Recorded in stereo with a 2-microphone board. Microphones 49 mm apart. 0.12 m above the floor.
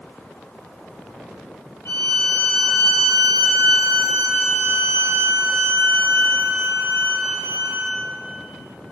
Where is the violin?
85° left, 2.5 m.